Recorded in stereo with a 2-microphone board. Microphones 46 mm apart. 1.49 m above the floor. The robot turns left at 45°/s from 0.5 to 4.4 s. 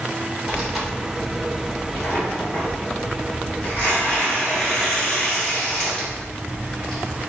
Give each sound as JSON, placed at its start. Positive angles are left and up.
{"t": 0.5, "sound": "tearing paper", "azimuth_deg": -170, "distance_m": 1.2}